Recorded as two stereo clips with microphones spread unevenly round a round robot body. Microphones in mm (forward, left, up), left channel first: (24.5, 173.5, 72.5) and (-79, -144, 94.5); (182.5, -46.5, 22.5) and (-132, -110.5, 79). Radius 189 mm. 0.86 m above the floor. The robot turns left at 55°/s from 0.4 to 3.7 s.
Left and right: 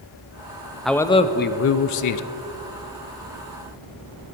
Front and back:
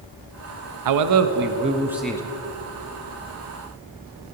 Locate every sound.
0.8 s a man speaking: 160° left, 0.6 m; by 2.2 s 85° left, 0.6 m